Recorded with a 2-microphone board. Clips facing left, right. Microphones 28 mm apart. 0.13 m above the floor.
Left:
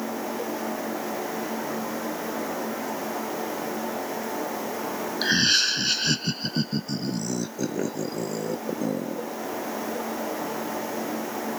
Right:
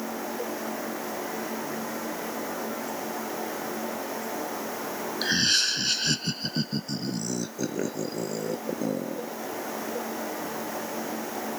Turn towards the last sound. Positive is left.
turn(degrees=-5)  # may be behind; listen again after turning